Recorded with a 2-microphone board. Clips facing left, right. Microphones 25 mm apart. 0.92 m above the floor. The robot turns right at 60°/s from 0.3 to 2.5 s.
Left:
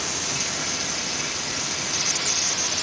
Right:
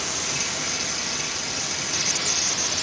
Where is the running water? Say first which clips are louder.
Even; 25° left, 1.8 m; by 2.8 s 155° left, 1.8 m.